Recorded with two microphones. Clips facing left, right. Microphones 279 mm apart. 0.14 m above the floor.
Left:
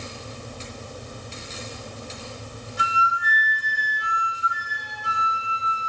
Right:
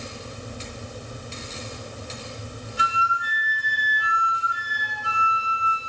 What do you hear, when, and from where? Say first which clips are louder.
2.8 s a flute: left 2 dB; 20° left (ahead or behind), 1.4 m